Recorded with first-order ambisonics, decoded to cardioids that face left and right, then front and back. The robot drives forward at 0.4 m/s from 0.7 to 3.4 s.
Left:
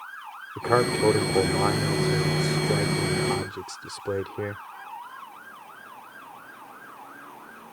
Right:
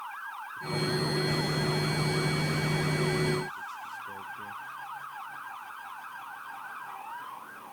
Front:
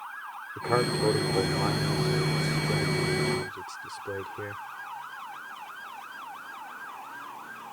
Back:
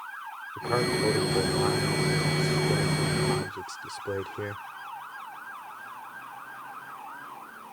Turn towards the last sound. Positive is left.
turn(degrees=100)